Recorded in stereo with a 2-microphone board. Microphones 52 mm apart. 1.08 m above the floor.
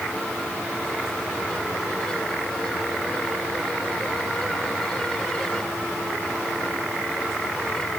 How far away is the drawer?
I don't hear a drawer.